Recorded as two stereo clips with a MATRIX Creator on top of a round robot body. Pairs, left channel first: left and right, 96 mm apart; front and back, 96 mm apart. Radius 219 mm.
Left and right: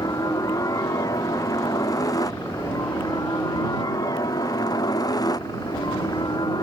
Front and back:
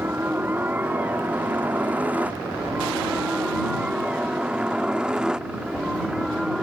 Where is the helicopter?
120° left; by 6.6 s 100° left.